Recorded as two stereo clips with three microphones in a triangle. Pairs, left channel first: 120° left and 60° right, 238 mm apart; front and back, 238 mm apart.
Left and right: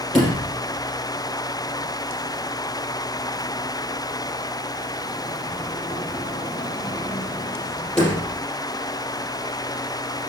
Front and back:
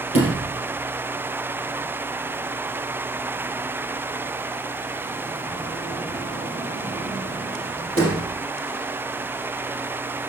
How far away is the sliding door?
About 4 m.